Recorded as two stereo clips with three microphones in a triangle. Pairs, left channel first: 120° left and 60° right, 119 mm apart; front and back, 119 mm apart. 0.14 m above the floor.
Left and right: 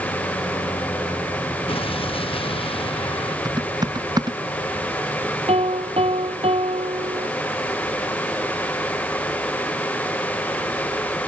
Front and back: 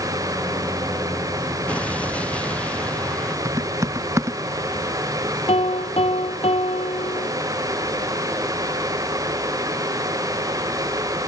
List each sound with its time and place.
1.7 s an explosion: 80° left
3.5 s typing on a keyboard: 115° right
5.5 s a piano: 30° right